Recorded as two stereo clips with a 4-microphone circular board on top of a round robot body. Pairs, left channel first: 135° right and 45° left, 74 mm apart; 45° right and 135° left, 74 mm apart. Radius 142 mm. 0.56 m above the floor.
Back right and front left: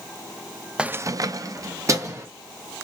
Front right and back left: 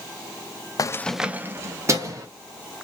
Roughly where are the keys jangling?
Ahead right.